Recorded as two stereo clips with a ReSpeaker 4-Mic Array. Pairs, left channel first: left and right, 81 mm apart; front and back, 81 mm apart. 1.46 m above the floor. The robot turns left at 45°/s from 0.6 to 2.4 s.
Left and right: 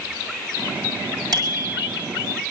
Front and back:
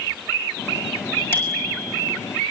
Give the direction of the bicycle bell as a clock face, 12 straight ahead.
2 o'clock.